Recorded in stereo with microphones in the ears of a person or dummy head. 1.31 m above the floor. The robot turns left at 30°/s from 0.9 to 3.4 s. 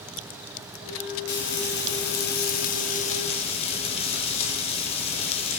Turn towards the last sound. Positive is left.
turn(degrees=40)